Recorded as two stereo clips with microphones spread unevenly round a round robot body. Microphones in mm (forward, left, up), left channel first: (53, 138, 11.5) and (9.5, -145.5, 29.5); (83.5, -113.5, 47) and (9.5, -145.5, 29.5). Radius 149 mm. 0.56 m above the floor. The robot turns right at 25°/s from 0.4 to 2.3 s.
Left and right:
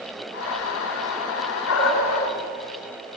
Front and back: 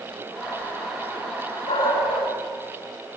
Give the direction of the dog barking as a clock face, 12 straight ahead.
11 o'clock.